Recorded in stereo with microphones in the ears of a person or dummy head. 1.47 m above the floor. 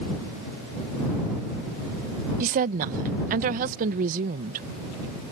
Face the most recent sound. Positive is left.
turn(degrees=-45)  # may be behind; listen again after turning